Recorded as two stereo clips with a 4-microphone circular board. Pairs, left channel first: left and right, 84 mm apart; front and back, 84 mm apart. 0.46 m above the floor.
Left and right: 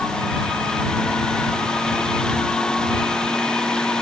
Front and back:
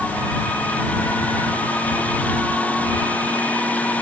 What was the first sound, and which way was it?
Only background noise.